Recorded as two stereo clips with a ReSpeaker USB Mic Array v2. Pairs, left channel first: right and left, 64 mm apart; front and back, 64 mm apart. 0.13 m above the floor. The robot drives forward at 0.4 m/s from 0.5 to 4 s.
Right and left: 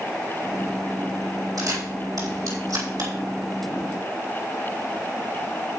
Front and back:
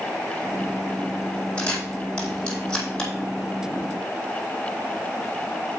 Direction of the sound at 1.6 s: 75° left.